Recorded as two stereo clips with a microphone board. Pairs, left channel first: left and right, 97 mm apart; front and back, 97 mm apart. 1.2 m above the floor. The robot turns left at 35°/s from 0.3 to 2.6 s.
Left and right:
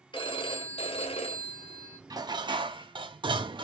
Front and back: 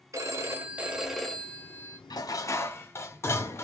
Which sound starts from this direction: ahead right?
Dishes clattering, at 2.1 s.